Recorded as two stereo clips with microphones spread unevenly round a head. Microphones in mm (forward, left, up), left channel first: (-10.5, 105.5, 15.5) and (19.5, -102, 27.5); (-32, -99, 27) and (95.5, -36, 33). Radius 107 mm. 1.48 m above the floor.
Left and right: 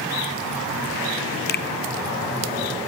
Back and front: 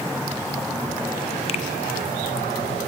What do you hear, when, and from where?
1.5 s a finger snap: 145° left, 0.6 m